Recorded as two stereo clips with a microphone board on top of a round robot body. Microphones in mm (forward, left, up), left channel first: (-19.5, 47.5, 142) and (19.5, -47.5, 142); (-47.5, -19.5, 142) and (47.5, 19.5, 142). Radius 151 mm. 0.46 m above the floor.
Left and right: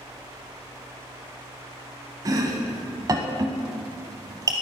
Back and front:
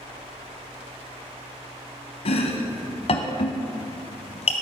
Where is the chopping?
125° right, 0.6 m.